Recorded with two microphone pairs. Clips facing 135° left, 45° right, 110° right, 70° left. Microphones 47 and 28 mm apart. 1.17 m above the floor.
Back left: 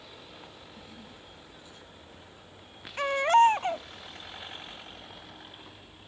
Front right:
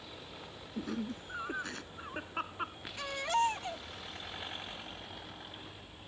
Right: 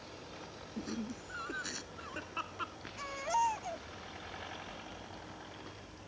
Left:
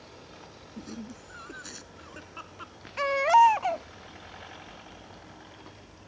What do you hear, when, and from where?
0.8 s laughter: 30° right; by 2.8 s 35° right
3.0 s a baby crying: 90° left